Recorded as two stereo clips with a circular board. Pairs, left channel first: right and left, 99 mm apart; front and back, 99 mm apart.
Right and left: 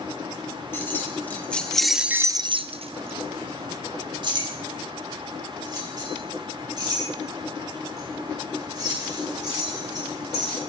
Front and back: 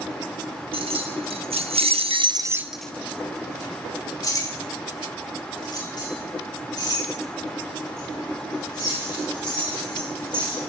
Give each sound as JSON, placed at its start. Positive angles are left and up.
{"t": 0.7, "sound": "keys jangling", "azimuth_deg": -155, "distance_m": 1.9}